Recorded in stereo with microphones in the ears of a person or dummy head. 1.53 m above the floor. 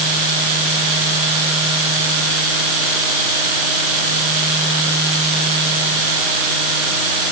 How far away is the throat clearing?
I don't hear throat clearing.